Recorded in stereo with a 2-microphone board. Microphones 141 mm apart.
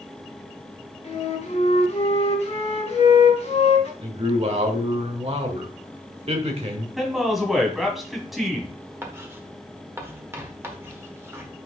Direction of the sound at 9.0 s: 15° right (ahead or behind).